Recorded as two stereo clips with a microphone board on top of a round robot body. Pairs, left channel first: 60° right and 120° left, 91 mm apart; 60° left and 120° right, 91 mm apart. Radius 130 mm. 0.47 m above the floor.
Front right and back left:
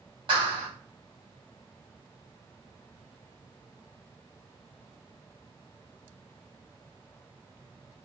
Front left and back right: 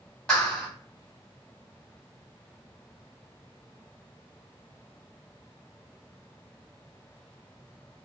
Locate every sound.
0.3 s a clap: 140° left, 2 m